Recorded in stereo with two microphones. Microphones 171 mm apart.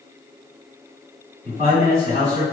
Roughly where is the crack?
I don't hear a crack.